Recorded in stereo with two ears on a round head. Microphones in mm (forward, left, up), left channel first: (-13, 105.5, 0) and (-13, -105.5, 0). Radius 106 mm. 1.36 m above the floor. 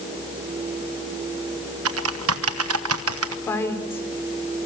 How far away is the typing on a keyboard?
About 1.2 m.